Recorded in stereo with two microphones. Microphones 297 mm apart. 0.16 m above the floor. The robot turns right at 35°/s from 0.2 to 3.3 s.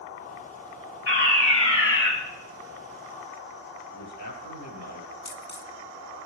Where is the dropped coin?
35° left (ahead or behind), 1.1 m.